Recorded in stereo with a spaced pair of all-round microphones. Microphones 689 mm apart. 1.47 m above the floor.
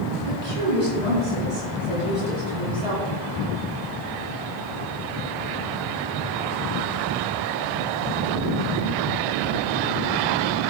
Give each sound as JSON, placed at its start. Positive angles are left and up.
{"t": 0.3, "sound": "a woman speaking", "side_deg": -65, "distance_m": 3.5}